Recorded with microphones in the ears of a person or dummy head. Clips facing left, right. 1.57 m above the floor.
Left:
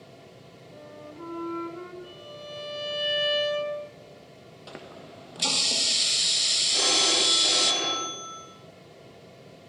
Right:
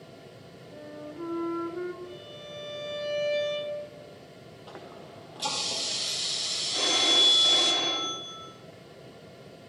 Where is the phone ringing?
70° left (ahead or behind), 6 m.